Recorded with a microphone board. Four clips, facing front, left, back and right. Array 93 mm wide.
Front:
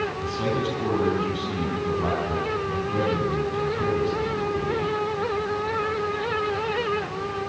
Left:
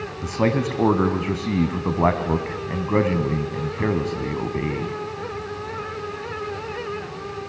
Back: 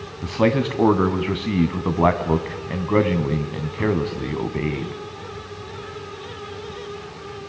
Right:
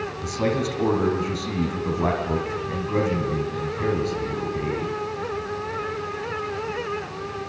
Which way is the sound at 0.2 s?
150° left.